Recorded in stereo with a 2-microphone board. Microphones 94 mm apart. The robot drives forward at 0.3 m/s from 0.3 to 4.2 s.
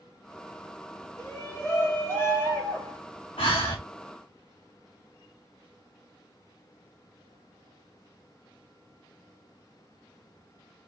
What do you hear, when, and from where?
1.2 s a shout: 30° left (ahead or behind), 1.6 m; by 3.0 s 25° left (ahead or behind), 2.0 m
3.4 s breathing: 75° left (ahead or behind), 1.6 m; by 3.8 s 80° left, 1.5 m